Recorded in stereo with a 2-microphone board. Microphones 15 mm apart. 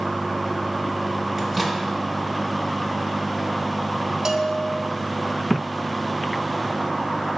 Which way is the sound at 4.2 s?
40° right (ahead or behind).